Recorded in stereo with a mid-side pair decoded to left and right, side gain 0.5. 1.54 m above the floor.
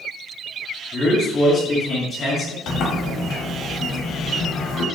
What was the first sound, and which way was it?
A man speaking, 40° left.